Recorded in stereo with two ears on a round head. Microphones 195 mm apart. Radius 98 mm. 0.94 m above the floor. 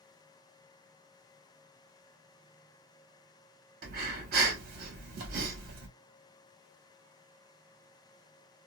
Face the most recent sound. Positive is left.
turn(degrees=-45)  # may be behind; listen again after turning